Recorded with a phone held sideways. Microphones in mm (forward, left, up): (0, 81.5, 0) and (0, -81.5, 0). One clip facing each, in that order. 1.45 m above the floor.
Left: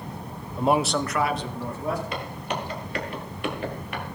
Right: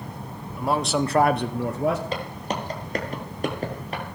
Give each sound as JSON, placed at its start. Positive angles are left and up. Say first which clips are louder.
{"t": 0.6, "sound": "a man speaking", "louder": "left 1 dB", "side_deg": 30, "distance_m": 0.7}
{"t": 2.1, "sound": "footsteps", "louder": "right 2 dB", "side_deg": -35, "distance_m": 2.5}